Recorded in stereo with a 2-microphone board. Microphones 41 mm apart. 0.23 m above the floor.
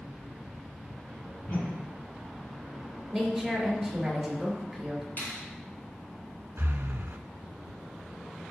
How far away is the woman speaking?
About 3.5 m.